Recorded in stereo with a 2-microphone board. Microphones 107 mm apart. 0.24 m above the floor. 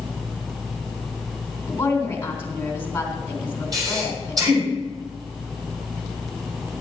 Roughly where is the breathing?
Right.